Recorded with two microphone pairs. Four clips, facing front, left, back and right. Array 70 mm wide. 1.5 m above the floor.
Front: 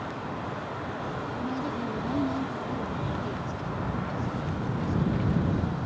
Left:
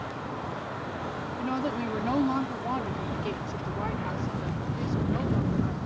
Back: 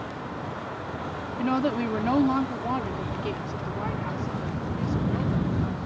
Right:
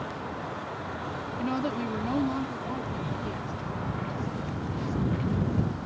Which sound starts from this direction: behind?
A woman speaking, at 1.4 s.